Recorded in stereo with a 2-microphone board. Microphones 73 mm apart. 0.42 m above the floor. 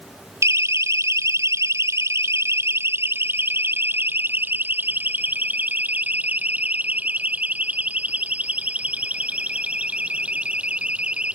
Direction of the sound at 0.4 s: 45° right (ahead or behind).